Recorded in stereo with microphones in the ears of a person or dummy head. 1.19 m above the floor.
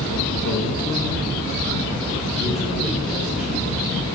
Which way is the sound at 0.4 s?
65° left (ahead or behind).